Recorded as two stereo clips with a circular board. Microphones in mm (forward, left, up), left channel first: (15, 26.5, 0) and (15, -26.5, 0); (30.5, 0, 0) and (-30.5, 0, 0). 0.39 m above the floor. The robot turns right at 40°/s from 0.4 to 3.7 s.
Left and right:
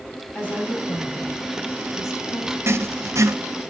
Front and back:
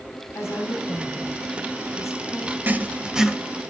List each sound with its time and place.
0.3 s a woman speaking: 30° left, 2.5 m; by 2.6 s 115° left, 2.5 m
2.7 s writing: 120° right, 0.6 m; by 3.4 s 95° right, 0.6 m